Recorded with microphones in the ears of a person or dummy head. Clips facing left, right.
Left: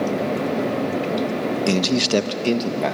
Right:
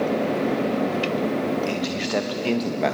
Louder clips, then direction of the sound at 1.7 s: Left 6 dB; 75° left (ahead or behind).